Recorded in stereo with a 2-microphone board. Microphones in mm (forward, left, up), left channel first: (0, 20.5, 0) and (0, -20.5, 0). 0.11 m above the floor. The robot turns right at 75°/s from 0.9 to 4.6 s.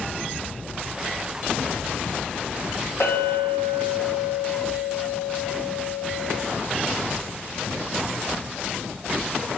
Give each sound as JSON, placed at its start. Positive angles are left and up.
{"t": 3.0, "sound": "a clink", "azimuth_deg": 75, "distance_m": 2.0}